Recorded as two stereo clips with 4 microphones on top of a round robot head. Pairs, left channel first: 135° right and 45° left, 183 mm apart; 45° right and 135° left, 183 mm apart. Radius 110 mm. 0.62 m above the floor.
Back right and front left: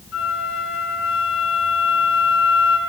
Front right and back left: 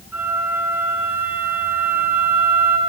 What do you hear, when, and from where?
0.1 s a flute: 145° right, 2.5 m